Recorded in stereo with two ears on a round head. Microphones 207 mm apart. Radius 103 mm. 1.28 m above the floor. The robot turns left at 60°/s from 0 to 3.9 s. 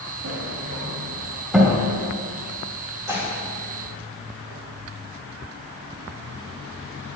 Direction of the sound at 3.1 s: 15° right (ahead or behind).